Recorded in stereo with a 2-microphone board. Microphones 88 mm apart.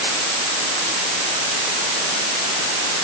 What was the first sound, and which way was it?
Only background noise.